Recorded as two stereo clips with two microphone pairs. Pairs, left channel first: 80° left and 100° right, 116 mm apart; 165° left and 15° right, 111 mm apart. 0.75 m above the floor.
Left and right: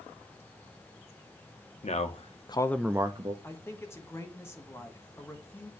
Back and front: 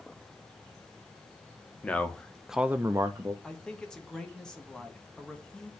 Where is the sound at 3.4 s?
90° left, 1.0 m.